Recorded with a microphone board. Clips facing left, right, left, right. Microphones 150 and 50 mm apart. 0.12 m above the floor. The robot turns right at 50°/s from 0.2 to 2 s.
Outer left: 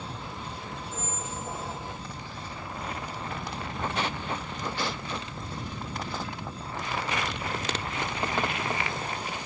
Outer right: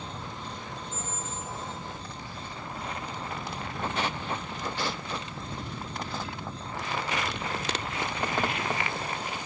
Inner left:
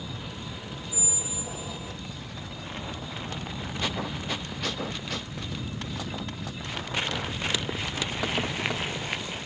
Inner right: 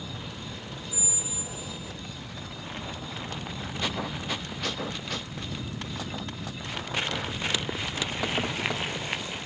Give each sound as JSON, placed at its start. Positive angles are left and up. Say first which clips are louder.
{"t": 0.9, "sound": "a squeak", "louder": "outer left 1 dB, inner left 1 dB", "azimuth_deg": -5, "distance_m": 2.0}